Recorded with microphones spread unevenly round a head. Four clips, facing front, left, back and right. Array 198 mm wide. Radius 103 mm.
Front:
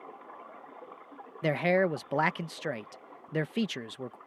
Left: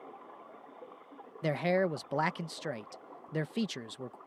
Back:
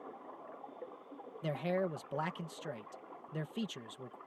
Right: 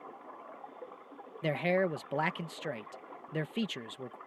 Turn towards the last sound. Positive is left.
turn(degrees=5)